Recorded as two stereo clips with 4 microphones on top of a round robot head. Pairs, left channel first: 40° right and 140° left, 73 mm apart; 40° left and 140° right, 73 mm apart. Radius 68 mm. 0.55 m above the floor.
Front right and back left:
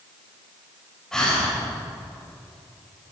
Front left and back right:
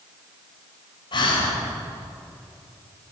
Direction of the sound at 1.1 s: 40° left.